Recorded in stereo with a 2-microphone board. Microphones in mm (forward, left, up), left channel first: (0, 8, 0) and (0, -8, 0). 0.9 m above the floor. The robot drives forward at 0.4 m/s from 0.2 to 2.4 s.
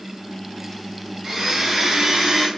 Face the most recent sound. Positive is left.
turn(degrees=-35)  # may be behind; listen again after turning